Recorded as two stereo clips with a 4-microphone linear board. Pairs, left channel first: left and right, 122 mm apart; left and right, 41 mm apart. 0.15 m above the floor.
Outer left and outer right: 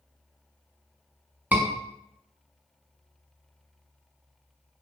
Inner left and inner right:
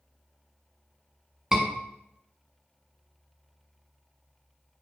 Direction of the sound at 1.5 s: 15° right (ahead or behind).